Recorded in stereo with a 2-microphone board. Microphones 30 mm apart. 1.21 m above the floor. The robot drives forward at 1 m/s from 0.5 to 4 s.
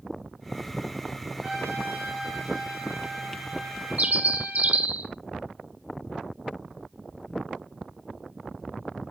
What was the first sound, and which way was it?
A trumpet, 20° right (ahead or behind).